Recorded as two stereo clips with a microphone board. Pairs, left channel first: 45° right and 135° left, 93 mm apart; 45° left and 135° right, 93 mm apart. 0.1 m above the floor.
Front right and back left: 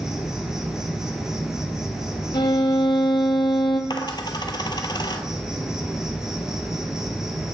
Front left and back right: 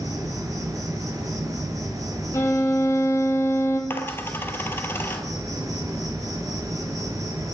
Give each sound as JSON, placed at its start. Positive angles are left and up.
{"t": 0.0, "sound": "an insect", "azimuth_deg": -145, "distance_m": 1.9}
{"t": 2.3, "sound": "a violin", "azimuth_deg": -15, "distance_m": 1.3}
{"t": 3.9, "sound": "a dropped coin", "azimuth_deg": -20, "distance_m": 0.9}